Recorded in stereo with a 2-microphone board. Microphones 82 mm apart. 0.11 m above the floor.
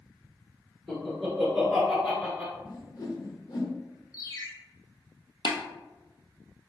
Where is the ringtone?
50° left (ahead or behind), 1.1 m.